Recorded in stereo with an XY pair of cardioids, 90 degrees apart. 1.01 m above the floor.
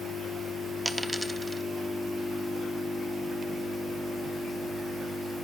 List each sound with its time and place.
0.8 s a dropped coin: 10° right, 1.0 m